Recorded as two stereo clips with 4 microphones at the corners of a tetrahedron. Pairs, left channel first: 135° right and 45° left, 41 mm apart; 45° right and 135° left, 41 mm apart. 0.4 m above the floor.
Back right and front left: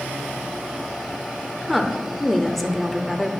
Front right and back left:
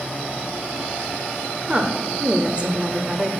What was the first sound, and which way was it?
A woman speaking, 135° left.